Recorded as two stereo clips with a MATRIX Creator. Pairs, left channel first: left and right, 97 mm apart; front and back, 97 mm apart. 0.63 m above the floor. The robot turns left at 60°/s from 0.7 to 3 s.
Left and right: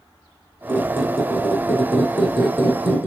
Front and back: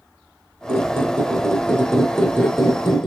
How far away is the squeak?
About 2 m.